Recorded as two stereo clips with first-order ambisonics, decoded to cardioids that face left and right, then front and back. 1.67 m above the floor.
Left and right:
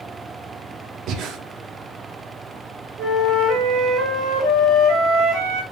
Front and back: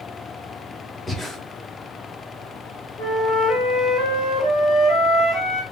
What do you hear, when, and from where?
1.1 s breathing: 80° right, 0.6 m
3.0 s a flute: 60° right, 3 m